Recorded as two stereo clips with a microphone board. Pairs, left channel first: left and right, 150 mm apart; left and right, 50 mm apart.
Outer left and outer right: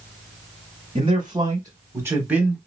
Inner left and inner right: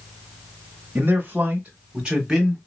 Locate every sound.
0.9 s a man speaking: 35° right (ahead or behind), 1.6 m; by 2.6 s 5° right (ahead or behind), 1.3 m